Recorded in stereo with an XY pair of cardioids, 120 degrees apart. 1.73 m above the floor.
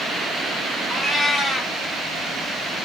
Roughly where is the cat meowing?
Ahead.